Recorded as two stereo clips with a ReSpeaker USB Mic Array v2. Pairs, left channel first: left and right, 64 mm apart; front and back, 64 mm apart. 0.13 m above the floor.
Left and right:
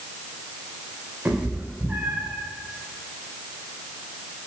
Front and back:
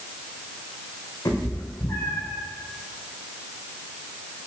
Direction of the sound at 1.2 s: 25° right.